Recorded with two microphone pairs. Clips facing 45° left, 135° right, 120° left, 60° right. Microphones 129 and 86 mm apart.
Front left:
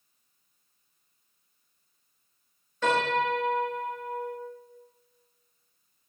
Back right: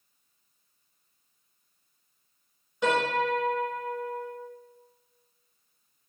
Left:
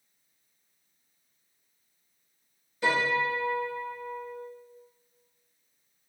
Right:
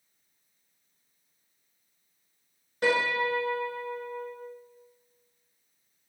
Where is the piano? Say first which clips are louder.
Even, right 1 dB; 60° right, 1.2 m.